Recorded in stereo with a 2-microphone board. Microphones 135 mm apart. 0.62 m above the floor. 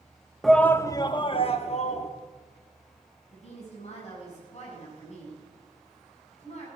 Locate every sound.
0.4 s a shout: centre (ahead or behind), 0.7 m; by 2.1 s 55° left (ahead or behind), 1.3 m
3.3 s a woman speaking: 55° left (ahead or behind), 6 m